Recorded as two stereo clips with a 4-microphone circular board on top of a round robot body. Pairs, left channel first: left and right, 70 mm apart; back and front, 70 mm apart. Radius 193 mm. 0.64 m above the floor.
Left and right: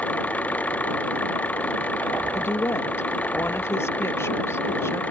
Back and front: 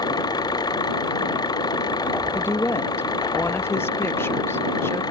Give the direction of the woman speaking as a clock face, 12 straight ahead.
8 o'clock.